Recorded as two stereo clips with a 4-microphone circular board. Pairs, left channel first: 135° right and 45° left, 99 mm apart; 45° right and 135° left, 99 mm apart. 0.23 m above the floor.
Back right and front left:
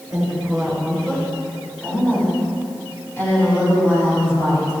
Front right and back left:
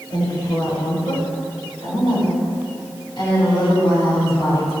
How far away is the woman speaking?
About 3 m.